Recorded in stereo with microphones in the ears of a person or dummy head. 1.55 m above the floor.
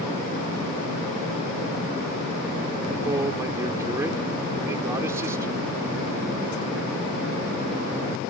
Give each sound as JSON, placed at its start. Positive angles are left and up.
{"t": 3.0, "sound": "a man speaking", "side_deg": -15}